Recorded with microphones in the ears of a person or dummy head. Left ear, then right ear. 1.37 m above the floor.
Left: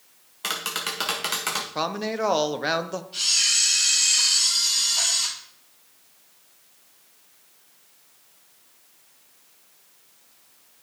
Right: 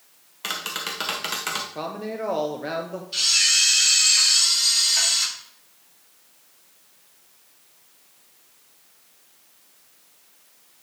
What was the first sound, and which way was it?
Tapping, 5° left (ahead or behind).